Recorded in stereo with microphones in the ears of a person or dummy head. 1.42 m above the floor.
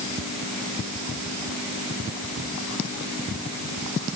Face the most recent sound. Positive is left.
No sound to turn to.